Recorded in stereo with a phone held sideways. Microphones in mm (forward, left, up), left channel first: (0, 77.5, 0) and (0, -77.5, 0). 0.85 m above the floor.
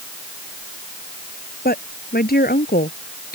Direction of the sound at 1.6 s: 75° left (ahead or behind).